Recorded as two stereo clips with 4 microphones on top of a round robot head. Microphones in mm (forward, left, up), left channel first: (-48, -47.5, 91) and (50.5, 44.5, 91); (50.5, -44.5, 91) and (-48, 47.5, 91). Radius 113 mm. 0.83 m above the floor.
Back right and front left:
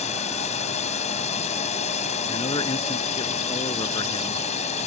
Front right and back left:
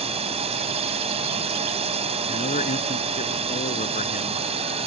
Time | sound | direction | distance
0.0 | a drone | straight behind | ?
2.3 | a man speaking | 80° right | ?